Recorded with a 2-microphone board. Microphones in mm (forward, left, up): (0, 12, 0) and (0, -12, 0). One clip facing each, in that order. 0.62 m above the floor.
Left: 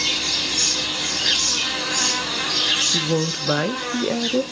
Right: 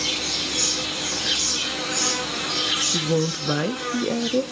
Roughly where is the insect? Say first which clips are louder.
Left 3 dB; left.